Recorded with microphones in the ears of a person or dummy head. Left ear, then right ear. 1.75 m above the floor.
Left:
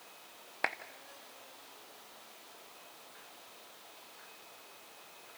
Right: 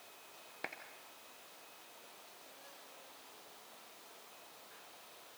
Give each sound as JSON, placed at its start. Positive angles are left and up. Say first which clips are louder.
{"t": 0.6, "sound": "a clap", "louder": "left 11 dB", "side_deg": 20, "distance_m": 0.8}